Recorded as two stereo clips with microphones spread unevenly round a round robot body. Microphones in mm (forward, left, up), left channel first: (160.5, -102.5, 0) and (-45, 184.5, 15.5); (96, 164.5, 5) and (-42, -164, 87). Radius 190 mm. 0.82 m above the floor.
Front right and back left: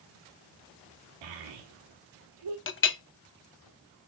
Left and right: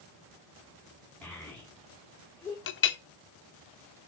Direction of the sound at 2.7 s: 5° left.